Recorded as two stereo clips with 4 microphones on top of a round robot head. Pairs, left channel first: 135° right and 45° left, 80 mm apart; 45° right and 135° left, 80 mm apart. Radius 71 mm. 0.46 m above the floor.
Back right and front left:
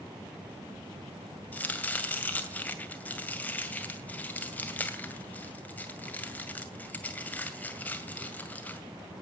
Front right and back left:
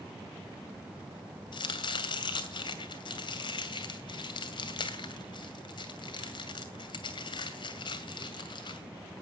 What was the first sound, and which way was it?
Chopping, 65° right.